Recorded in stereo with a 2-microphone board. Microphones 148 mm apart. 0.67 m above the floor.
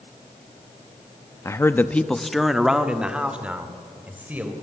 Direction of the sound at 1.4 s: 20° left (ahead or behind).